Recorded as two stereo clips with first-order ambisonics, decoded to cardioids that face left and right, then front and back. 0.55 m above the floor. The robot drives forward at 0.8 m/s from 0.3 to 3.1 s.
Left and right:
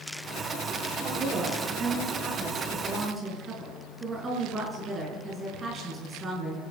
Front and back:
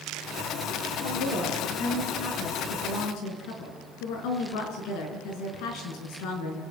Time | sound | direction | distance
0.9 | a woman speaking | 15° right | 8 m